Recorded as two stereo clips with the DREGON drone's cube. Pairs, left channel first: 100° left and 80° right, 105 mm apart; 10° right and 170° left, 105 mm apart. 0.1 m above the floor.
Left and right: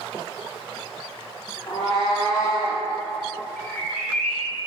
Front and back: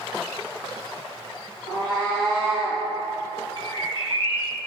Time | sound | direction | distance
1.7 | a cat meowing | 130° left | 1.8 m
3.6 | a bird | 30° left | 0.7 m